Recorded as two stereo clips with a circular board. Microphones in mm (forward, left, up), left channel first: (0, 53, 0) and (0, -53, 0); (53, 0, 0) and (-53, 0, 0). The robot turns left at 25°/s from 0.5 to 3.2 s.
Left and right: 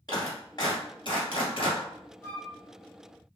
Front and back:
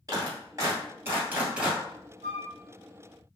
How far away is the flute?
About 1.7 m.